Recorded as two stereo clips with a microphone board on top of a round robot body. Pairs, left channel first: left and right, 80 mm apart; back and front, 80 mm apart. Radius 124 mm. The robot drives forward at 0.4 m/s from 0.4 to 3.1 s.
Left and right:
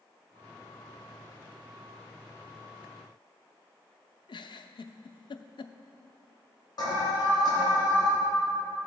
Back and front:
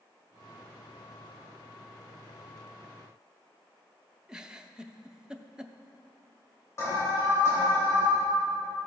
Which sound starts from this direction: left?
A giggle, at 4.3 s.